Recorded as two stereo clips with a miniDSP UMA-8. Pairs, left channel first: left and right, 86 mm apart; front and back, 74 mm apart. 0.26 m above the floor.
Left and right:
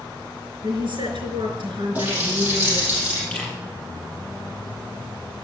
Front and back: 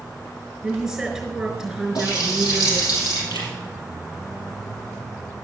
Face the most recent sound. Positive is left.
turn(degrees=15)